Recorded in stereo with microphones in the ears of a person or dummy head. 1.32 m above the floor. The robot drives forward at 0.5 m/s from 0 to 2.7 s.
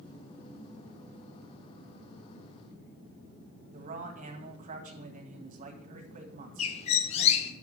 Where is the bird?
40° left (ahead or behind), 0.9 m.